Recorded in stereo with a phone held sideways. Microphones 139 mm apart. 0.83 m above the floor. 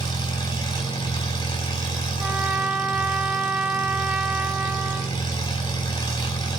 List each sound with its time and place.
0.0 s an engine running: 30° left (ahead or behind), 4.5 m
2.2 s a trumpet: 10° right (ahead or behind), 0.9 m